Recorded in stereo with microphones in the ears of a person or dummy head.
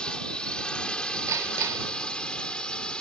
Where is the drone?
5° left (ahead or behind).